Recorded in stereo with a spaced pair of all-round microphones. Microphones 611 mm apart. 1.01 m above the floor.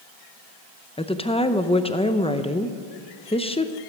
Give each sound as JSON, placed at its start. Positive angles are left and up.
{"t": 1.0, "sound": "a woman speaking", "side_deg": 10, "distance_m": 0.6}